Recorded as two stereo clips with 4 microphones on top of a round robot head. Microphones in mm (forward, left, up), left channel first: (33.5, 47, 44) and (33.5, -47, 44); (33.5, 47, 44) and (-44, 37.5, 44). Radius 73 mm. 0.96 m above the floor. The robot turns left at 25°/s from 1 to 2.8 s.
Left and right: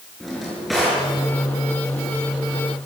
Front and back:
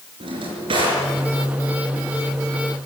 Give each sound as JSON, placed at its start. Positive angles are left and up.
{"t": 0.2, "sound": "a drawer", "azimuth_deg": 180, "distance_m": 5.5}